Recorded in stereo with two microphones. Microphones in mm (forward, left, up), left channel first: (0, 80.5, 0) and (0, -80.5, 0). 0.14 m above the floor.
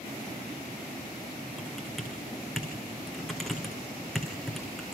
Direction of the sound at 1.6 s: Centre (ahead or behind).